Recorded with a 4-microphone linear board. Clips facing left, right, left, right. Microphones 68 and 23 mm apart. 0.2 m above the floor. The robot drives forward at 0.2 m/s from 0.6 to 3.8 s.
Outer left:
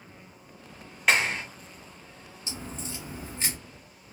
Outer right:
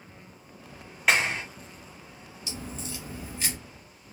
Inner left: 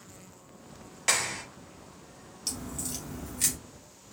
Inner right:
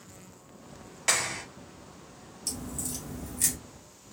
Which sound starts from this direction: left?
A crack, at 2.5 s.